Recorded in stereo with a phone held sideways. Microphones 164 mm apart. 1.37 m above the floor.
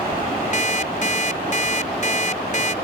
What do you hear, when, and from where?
0.5 s an alarm clock: 50° left (ahead or behind)